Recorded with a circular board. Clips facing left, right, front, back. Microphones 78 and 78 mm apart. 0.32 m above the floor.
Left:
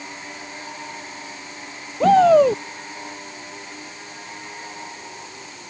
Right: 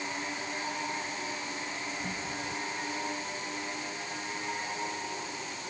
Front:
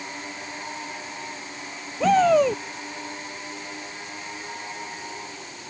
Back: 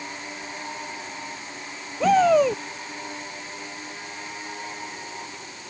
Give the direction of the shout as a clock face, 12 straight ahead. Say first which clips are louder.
Left 25 dB, even; 9 o'clock.